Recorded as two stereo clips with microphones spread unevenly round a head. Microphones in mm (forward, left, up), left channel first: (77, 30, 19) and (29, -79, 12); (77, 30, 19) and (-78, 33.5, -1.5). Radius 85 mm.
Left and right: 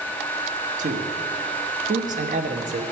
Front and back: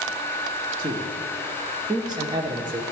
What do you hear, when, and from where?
0.8 s a man speaking: 115° right, 0.9 m